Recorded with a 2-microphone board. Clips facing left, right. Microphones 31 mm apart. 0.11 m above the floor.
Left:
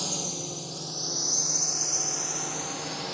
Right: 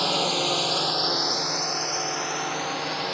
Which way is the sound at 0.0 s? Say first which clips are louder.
Right 11 dB; 45° right (ahead or behind).